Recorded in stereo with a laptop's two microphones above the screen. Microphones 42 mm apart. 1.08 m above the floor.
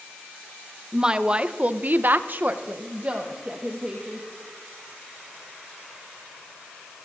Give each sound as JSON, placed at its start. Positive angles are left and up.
{"t": 0.9, "sound": "a woman speaking", "side_deg": -15, "distance_m": 1.1}